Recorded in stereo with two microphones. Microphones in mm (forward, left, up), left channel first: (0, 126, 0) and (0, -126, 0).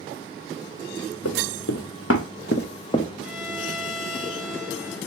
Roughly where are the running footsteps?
Left.